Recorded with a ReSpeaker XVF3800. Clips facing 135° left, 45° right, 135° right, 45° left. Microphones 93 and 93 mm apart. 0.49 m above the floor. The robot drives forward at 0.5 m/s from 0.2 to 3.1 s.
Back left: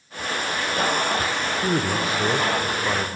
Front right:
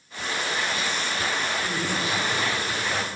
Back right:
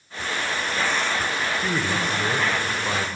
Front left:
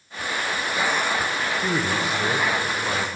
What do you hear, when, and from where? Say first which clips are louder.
1.6 s a man speaking: back left 5 dB, front left 1 dB; 115° left, 1.8 m; by 3.1 s 140° left, 2 m